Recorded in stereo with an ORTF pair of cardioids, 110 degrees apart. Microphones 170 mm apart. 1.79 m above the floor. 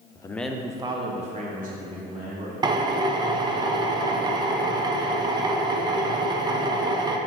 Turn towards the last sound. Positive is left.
turn(degrees=-25)